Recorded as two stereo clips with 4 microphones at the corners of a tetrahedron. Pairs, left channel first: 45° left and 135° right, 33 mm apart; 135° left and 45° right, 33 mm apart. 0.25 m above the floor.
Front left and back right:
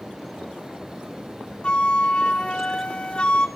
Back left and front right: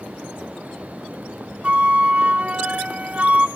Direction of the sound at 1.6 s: 5° right.